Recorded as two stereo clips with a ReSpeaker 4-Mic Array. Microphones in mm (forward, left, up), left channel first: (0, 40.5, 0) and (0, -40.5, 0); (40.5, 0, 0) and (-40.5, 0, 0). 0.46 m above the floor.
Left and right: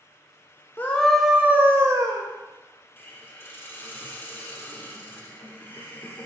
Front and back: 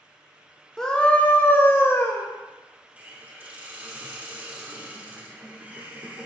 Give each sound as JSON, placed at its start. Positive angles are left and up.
{"t": 0.8, "sound": "a scream", "azimuth_deg": 70, "distance_m": 0.8}
{"t": 3.0, "sound": "a hiss", "azimuth_deg": 125, "distance_m": 1.0}